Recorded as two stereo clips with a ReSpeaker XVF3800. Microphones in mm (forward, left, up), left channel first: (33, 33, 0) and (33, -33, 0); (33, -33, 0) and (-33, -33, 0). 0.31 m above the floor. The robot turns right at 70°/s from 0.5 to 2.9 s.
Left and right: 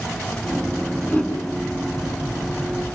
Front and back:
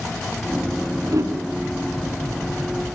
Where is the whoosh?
155° left, 4 m; by 1.4 s 170° left, 4 m.